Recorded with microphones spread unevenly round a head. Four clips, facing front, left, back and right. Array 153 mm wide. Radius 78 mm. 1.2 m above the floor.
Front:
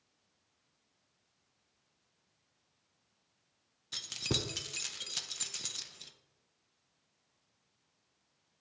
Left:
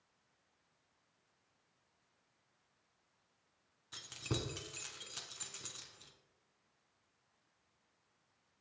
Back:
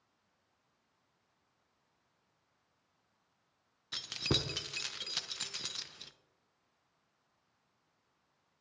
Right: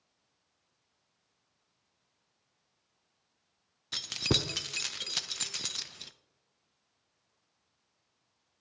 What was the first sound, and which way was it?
Keys jangling, 90° right.